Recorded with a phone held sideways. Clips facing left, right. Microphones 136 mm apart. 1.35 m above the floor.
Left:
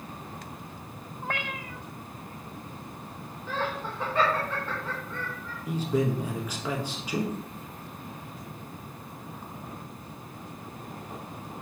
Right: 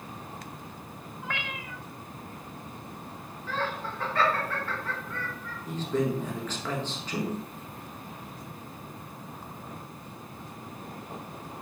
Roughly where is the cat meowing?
Left.